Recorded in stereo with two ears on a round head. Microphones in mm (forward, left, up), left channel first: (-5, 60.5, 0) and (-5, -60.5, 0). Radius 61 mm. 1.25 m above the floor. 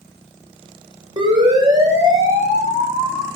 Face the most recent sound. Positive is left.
turn(degrees=-20)  # may be behind; listen again after turning